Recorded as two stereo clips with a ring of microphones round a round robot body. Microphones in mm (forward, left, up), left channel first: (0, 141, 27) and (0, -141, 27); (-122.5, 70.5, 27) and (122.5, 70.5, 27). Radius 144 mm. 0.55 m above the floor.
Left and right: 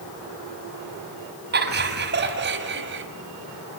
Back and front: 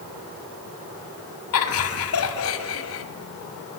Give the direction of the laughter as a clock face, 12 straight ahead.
5 o'clock.